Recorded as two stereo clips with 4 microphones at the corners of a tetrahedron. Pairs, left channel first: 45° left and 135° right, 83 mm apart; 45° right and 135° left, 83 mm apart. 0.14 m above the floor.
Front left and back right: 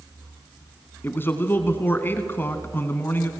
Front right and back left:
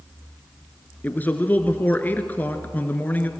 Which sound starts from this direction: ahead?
A man speaking, at 1.0 s.